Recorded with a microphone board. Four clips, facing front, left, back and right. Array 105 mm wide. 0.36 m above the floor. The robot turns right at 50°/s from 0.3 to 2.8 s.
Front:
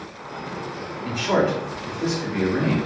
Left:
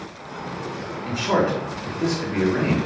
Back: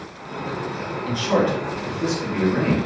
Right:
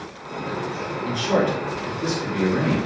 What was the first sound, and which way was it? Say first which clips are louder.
A man speaking: even, even; 40° left.